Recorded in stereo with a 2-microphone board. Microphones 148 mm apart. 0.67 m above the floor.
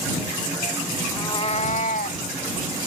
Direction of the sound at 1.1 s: 20° left (ahead or behind).